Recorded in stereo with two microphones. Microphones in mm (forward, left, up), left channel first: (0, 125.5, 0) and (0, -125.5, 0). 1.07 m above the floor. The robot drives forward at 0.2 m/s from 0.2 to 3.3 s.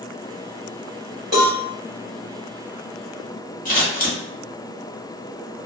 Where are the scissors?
30° left (ahead or behind), 1.0 m.